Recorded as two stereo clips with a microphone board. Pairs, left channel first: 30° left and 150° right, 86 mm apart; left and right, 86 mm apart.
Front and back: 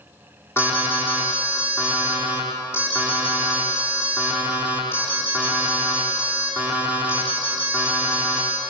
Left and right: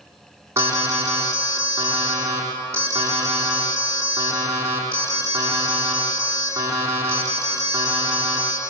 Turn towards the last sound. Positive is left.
turn(degrees=-30)